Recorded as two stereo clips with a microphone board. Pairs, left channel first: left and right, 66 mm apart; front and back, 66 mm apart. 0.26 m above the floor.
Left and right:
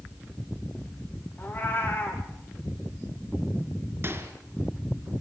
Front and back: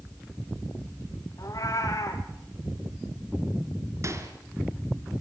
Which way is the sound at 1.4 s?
30° left.